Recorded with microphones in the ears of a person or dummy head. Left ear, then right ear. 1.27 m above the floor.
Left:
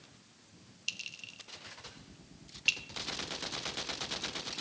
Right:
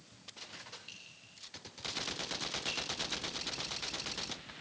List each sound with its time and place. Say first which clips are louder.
0.9 s a clink: left 11 dB; 60° left (ahead or behind), 1.2 m